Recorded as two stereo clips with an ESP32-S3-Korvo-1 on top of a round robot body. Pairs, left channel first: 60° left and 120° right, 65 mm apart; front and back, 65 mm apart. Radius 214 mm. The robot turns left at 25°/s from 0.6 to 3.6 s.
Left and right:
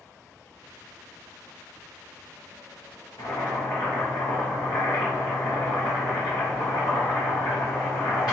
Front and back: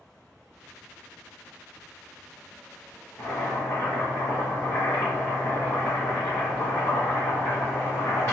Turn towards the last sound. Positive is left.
turn(degrees=50)